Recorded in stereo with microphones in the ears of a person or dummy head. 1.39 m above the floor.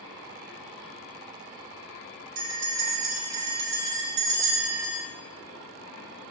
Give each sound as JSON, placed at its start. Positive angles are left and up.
{"t": 2.4, "sound": "a bell", "side_deg": -55, "distance_m": 4.5}